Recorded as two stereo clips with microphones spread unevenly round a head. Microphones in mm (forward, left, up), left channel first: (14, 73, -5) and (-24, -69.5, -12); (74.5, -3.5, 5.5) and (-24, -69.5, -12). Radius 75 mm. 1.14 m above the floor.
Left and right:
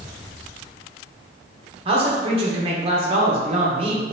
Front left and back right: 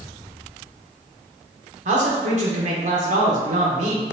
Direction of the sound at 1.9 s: 155° right.